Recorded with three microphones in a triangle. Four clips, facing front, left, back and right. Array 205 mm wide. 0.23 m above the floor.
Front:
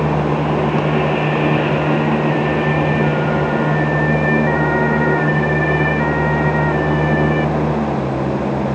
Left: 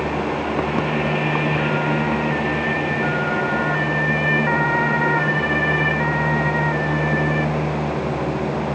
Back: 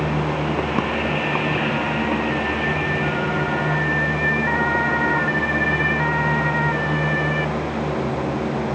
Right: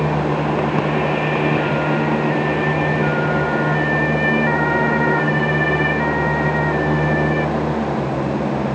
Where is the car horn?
I don't hear a car horn.